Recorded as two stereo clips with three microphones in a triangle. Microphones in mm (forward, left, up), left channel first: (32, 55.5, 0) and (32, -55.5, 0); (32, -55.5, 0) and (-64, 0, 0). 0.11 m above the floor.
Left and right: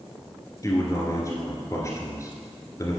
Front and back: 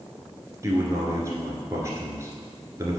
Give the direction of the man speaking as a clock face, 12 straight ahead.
8 o'clock.